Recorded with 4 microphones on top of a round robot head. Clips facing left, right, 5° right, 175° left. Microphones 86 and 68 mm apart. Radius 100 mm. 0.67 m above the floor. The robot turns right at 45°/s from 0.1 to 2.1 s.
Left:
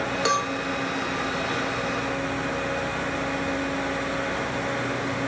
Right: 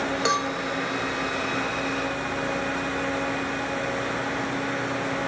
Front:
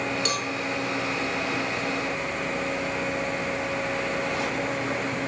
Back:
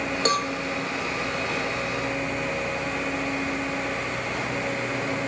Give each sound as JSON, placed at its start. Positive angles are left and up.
{"t": 0.2, "sound": "a cowbell", "azimuth_deg": 180, "distance_m": 0.9}